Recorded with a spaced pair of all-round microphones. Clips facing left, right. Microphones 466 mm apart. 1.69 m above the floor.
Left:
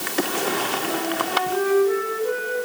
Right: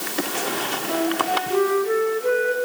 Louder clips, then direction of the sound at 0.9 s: Right 6 dB; 75° right (ahead or behind).